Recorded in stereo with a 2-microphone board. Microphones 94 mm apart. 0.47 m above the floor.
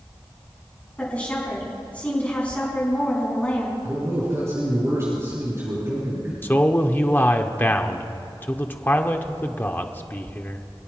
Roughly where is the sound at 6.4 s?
Left.